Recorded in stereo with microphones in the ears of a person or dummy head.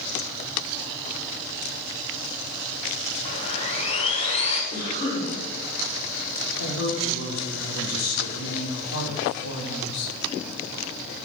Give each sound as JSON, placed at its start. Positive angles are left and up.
{"t": 3.2, "sound": "sawing", "side_deg": 30, "distance_m": 2.5}
{"t": 4.7, "sound": "a cough", "side_deg": 30, "distance_m": 5.0}
{"t": 6.6, "sound": "a woman speaking", "side_deg": 80, "distance_m": 4.5}